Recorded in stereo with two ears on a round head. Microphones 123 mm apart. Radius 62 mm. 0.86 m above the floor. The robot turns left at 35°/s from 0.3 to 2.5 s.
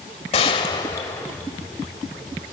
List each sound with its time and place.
0.3 s a gunshot: 50° left, 1.2 m; by 1.4 s 10° left, 1.2 m